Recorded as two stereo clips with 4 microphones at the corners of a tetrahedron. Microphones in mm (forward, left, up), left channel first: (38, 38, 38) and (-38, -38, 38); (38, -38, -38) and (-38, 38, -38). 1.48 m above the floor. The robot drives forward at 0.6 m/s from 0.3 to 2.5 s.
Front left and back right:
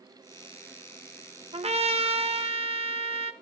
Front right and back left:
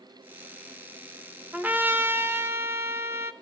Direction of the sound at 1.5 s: 150° right.